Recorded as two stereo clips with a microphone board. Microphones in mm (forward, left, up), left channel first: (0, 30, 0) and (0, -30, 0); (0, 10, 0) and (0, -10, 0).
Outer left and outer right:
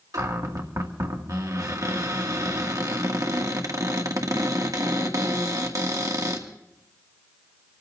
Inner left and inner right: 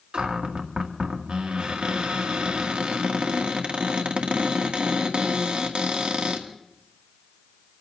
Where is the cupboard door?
70° right (ahead or behind), 2 m.